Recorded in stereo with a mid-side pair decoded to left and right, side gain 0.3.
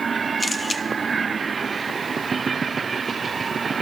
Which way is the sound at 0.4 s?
25° left.